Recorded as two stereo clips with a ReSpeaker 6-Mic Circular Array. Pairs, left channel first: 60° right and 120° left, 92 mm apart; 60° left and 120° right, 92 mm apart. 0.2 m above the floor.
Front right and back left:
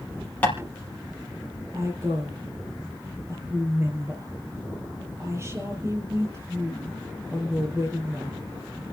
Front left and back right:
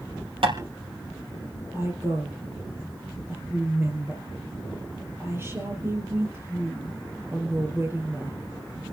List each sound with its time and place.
0.4 s tapping: 135° right, 4 m
1.7 s a woman speaking: straight behind, 5 m